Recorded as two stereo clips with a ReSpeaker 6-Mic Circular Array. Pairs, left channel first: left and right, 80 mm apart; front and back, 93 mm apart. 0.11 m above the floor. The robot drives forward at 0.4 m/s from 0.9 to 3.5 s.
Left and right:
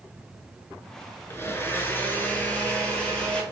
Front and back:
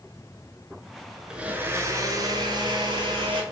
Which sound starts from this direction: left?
A blender, at 1.3 s.